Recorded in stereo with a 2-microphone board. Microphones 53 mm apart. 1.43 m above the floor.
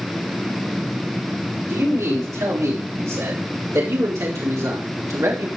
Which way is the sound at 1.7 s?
80° right.